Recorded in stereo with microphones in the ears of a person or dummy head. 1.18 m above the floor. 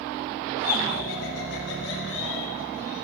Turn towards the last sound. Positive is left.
turn(degrees=75)  # may be behind; listen again after turning